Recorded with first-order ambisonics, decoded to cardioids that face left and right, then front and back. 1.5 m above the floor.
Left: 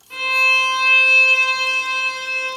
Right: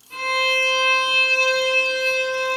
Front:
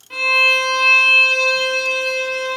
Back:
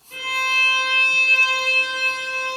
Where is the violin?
15° left, 1.0 m.